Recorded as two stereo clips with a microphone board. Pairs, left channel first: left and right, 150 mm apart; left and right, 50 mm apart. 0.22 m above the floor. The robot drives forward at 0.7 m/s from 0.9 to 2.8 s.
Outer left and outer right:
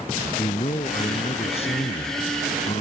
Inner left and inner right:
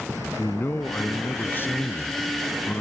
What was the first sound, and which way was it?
A man speaking, 40° left (ahead or behind).